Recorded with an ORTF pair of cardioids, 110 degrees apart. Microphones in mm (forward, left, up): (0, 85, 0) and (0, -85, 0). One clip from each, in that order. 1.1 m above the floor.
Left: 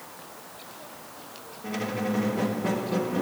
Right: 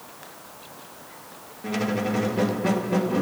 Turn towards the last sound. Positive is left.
turn(degrees=-20)